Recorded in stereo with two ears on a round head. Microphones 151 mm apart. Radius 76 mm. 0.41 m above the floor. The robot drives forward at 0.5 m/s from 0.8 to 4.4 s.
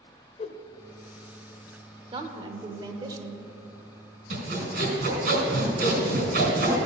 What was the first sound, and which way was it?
A whoosh, 35° left (ahead or behind).